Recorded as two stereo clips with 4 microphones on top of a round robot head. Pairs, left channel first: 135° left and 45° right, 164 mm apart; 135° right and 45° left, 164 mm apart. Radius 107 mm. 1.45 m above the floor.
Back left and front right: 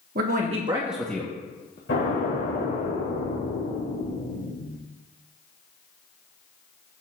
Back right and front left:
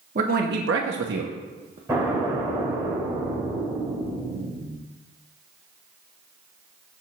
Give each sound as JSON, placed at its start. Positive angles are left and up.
{"t": 0.1, "sound": "a man speaking", "azimuth_deg": -5, "distance_m": 1.3}
{"t": 1.9, "sound": "an explosion", "azimuth_deg": 115, "distance_m": 5.0}